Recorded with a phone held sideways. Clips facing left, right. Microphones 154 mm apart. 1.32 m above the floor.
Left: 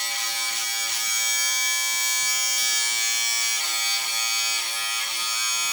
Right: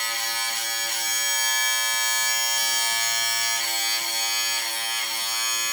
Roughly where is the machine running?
Right.